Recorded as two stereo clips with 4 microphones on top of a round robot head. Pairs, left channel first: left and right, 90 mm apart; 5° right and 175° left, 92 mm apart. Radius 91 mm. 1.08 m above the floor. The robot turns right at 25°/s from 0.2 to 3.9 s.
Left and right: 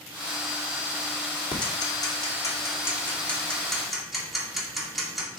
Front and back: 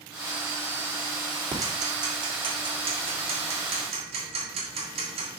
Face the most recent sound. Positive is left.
turn(degrees=180)